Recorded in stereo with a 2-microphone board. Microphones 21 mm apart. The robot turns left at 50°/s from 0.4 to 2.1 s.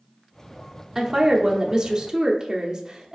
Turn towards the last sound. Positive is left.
turn(degrees=-85)